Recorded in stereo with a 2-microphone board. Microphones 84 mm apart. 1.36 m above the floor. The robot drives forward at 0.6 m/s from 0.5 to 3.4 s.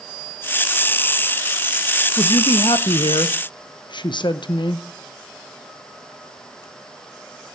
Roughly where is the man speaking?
Left.